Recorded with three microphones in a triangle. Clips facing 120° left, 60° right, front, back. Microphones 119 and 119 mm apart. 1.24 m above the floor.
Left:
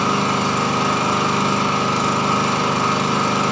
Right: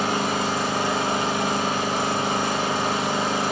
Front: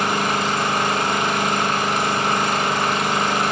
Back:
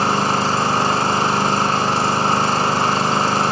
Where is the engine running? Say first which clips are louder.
Left 4 dB, back 3 dB; 120° left, 3 m.